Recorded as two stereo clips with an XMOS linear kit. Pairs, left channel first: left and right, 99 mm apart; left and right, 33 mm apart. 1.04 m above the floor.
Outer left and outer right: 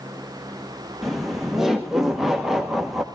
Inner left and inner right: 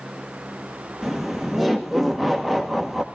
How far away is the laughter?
About 1.3 m.